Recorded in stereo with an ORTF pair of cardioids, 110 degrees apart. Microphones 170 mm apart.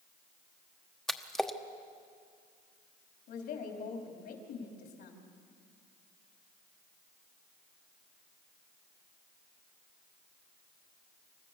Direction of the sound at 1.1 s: 5° left.